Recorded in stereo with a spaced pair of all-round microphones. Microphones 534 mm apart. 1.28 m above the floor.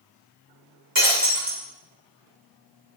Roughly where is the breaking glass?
Right.